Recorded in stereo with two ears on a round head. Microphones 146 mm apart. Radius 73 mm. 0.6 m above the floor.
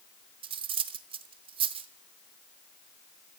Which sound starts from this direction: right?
Cutlery clinking, at 0.4 s.